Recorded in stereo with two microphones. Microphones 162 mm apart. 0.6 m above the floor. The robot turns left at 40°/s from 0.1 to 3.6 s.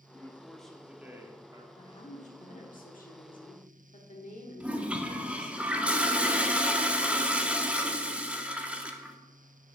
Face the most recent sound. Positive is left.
turn(degrees=-10)  # may be behind; listen again after turning